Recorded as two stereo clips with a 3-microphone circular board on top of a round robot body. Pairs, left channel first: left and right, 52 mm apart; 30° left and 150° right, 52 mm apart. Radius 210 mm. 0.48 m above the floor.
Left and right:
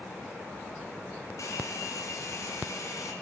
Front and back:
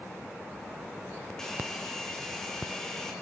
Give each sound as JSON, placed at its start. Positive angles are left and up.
{"t": 1.4, "sound": "a hair dryer", "azimuth_deg": 110, "distance_m": 1.5}